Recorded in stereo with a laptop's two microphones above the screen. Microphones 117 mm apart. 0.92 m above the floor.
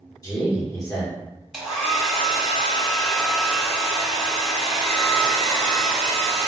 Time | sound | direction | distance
0.2 | a man speaking | 30° left (ahead or behind) | 1.0 m
1.5 | a hair dryer | 5° right (ahead or behind) | 1.4 m